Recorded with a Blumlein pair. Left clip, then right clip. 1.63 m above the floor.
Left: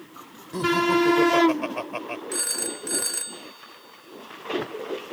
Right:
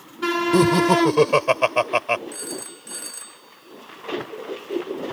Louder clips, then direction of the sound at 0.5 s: Right 3 dB; 60° right.